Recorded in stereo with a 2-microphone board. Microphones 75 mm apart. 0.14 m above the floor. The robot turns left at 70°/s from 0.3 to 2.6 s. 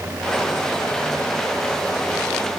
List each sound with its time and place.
Only background noise.